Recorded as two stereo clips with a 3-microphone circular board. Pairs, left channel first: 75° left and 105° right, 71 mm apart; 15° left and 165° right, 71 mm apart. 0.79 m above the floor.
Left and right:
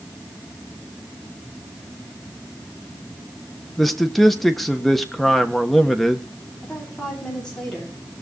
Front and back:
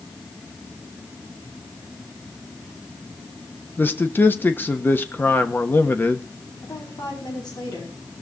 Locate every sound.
3.8 s a man speaking: 10° right, 1.1 m
6.6 s a woman speaking: 5° right, 7.5 m